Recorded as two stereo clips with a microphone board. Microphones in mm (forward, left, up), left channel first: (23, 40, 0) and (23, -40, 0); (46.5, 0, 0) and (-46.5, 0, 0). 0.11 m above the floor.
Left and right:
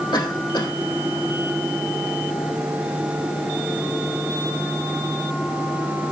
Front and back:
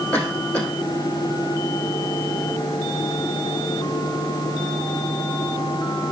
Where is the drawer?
I don't hear a drawer.